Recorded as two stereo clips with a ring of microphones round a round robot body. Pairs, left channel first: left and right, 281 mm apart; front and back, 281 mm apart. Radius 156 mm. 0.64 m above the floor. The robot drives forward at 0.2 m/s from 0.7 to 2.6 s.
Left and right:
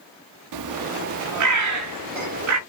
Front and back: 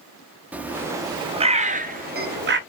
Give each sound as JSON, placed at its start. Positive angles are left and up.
{"t": 0.5, "sound": "a bird", "azimuth_deg": -95, "distance_m": 0.6}